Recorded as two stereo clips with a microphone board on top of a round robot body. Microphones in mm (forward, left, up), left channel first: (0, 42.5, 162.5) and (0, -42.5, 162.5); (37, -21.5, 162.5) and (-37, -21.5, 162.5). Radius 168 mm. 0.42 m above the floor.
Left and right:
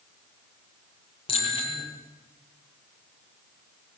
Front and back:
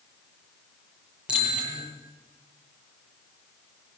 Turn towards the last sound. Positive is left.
turn(degrees=105)